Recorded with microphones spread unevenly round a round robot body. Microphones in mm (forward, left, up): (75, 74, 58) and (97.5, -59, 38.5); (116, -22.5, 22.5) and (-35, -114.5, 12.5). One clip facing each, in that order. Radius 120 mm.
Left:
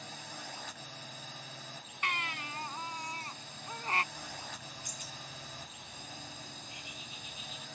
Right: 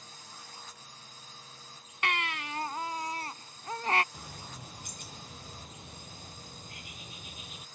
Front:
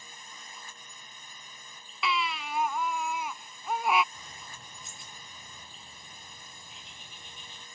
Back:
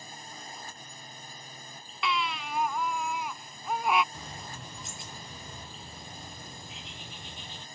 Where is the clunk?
No clunk in this recording.